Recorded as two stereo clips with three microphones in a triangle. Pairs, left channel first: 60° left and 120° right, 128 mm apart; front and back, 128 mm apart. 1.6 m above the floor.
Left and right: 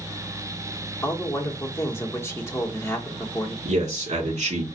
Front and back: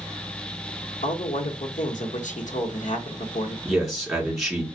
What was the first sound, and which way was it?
A man speaking, 10° right.